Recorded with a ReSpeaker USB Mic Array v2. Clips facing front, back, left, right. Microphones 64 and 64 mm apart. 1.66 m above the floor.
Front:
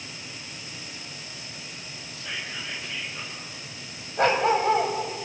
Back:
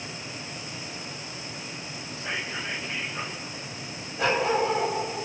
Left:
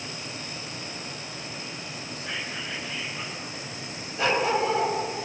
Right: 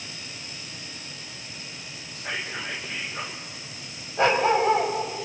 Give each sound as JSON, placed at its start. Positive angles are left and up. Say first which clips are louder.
{"t": 2.1, "sound": "whispering", "louder": "back 3 dB, right 3 dB", "azimuth_deg": -120, "distance_m": 2.0}
{"t": 4.2, "sound": "a dog barking", "louder": "front 3 dB, right 4 dB", "azimuth_deg": -35, "distance_m": 4.0}